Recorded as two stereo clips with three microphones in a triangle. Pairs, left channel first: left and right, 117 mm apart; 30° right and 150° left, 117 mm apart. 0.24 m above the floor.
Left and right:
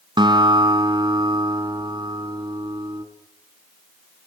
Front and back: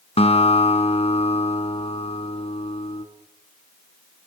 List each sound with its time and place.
0.2 s a guitar: 45° right, 2.5 m